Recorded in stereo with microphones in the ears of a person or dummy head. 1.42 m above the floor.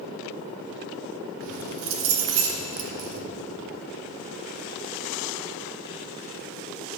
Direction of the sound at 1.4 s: 70° right (ahead or behind).